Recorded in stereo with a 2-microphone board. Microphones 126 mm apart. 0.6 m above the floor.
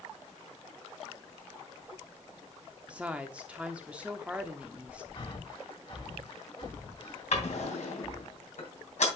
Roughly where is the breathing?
Left.